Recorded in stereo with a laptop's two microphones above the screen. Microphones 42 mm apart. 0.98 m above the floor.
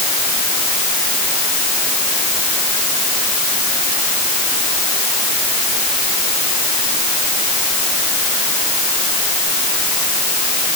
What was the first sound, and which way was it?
Only background noise.